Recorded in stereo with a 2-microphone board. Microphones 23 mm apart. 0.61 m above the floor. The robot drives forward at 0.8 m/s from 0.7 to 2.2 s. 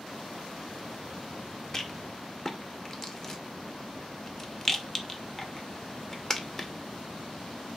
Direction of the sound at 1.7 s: 20° left (ahead or behind).